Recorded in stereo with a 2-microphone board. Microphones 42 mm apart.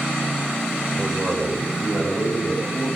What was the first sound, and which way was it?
A man speaking, centre (ahead or behind).